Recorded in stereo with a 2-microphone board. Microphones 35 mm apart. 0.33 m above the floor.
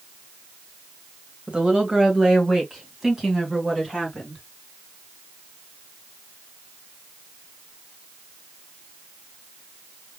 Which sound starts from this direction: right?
A woman speaking, at 1.5 s.